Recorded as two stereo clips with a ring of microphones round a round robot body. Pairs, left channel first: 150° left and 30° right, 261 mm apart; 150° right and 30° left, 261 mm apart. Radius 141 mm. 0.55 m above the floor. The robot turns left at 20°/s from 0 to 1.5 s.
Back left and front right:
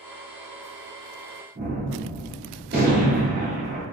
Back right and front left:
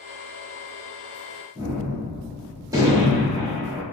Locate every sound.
1.6 s a gunshot: 40° right, 1.3 m